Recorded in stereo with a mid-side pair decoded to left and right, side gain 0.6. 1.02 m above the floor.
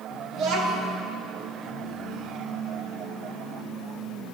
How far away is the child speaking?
About 1.7 m.